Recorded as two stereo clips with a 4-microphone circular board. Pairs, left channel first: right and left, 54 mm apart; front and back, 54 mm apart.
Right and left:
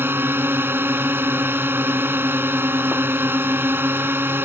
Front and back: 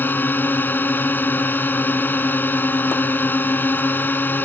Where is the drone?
50° left.